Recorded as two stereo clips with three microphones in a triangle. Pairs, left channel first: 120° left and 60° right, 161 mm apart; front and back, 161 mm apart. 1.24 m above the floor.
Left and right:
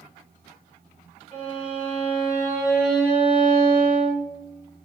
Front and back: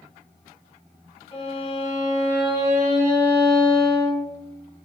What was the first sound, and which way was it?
A violin, 25° left.